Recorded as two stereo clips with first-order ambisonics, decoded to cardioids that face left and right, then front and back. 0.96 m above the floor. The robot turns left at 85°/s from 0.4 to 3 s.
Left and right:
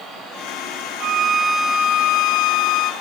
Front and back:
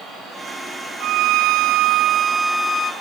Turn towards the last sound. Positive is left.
turn(degrees=45)